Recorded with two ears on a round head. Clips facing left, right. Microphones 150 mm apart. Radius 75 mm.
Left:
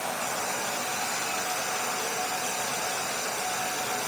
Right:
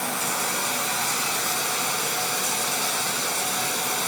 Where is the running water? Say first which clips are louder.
Right 2 dB; 65° right (ahead or behind), 1.7 m.